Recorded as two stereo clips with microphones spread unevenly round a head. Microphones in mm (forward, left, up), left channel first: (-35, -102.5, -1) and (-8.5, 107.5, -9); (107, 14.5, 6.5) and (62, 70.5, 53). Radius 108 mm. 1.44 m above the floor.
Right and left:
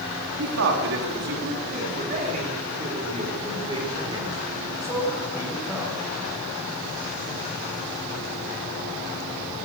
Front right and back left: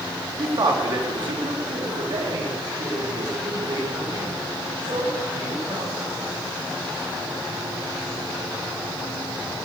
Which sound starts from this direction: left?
A man speaking, at 0.4 s.